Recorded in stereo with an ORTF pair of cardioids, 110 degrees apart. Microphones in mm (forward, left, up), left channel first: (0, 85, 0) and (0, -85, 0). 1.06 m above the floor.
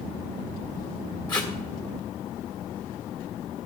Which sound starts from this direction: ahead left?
Tape being pulled, at 1.3 s.